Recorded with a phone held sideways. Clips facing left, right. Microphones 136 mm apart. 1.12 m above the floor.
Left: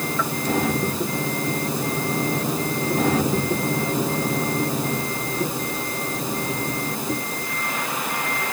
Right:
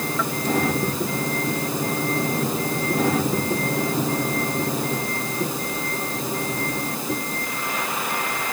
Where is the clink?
I don't hear a clink.